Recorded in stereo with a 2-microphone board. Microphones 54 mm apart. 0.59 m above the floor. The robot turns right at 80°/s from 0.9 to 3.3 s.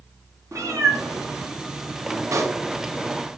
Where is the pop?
65° right (ahead or behind), 1.0 m; by 2.6 s 45° right (ahead or behind), 1.0 m.